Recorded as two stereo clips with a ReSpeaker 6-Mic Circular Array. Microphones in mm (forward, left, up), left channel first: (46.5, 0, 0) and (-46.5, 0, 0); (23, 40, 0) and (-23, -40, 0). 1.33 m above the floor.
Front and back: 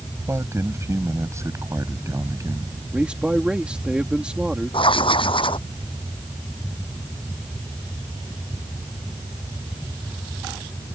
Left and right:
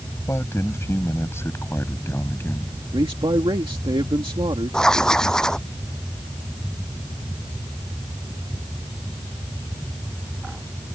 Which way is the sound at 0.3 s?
120° left.